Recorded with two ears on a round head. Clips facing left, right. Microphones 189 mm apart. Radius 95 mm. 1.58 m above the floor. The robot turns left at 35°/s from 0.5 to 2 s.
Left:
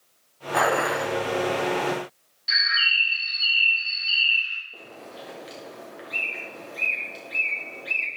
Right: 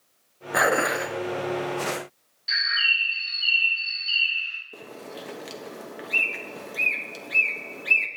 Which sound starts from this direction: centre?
A bird, at 2.5 s.